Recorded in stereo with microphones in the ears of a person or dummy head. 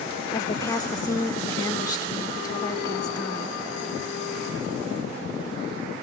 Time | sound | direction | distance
0.3 | a woman speaking | 20° left (ahead or behind) | 1.4 m